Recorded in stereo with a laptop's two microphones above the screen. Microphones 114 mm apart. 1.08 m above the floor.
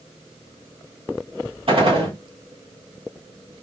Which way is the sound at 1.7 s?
55° right (ahead or behind).